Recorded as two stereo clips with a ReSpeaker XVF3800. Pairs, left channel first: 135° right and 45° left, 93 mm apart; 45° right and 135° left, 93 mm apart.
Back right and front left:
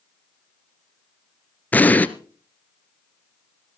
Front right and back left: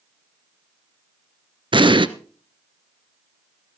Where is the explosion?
155° left, 0.8 m.